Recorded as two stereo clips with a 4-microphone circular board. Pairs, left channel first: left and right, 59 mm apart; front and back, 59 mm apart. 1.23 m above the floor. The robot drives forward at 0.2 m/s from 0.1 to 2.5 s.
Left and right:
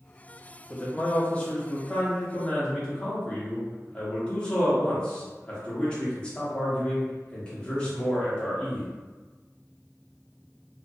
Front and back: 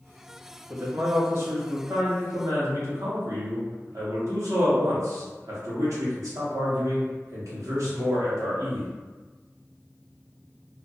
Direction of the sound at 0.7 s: 150° left.